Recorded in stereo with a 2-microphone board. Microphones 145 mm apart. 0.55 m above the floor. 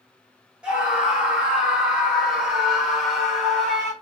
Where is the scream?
5° right (ahead or behind), 1.8 m; by 3.9 s centre (ahead or behind), 1.3 m.